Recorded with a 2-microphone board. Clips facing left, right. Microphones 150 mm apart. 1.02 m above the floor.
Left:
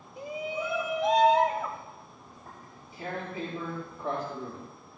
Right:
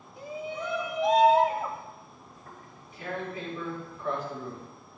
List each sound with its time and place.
0.2 s a shout: 20° left (ahead or behind), 1.1 m; by 1.8 s 10° right (ahead or behind), 1.5 m
2.3 s tearing paper: 35° left (ahead or behind), 6 m